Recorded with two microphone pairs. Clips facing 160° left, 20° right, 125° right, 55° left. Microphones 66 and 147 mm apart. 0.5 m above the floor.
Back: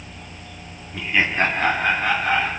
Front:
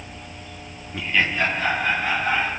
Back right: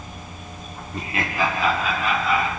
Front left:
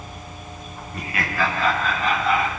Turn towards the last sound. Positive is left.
turn(degrees=150)